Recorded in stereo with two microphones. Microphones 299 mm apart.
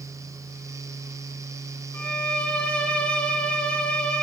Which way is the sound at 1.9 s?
5° left (ahead or behind).